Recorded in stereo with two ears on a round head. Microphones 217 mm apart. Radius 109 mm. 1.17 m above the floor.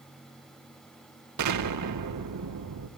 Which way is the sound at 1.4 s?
85° right.